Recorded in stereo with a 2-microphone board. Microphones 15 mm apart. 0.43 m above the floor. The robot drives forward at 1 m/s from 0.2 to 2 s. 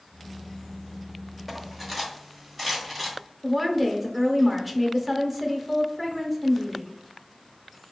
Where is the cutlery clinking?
Centre (ahead or behind), 0.7 m.